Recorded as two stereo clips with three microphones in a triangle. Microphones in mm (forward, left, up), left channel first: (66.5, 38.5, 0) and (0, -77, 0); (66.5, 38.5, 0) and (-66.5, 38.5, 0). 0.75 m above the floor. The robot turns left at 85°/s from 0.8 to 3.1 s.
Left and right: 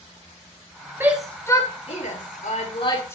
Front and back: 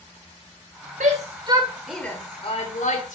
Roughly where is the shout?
Behind.